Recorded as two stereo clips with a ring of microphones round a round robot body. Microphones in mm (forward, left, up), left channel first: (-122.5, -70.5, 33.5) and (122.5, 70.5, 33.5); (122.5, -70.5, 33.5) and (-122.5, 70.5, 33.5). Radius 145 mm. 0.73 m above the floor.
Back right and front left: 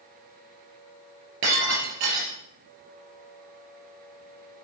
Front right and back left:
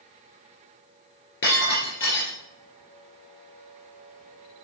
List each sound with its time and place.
1.4 s breaking glass: 20° left, 4.5 m